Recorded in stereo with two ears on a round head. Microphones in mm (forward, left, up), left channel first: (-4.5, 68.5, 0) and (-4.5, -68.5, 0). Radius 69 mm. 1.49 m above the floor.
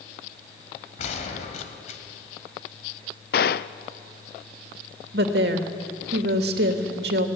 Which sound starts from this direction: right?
A woman speaking, at 5.1 s.